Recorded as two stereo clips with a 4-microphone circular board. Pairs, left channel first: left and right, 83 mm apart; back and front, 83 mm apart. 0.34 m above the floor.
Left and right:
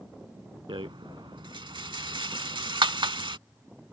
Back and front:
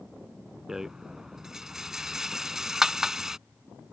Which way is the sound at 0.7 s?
85° right.